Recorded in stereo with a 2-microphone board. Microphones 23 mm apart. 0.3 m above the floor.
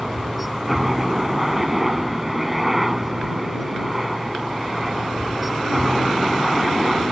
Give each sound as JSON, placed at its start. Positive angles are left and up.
{"t": 0.0, "sound": "a helicopter", "side_deg": -5}